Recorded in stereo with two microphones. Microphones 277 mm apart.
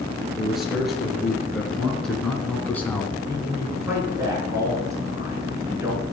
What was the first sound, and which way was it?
A man speaking, centre (ahead or behind).